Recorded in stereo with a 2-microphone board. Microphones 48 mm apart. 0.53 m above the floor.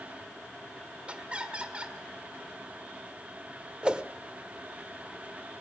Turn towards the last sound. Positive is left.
turn(degrees=-20)  # may be behind; listen again after turning